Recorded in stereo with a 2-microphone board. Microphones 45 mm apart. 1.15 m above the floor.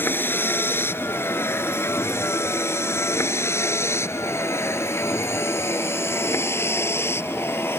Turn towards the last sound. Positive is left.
turn(degrees=65)  # may be behind; listen again after turning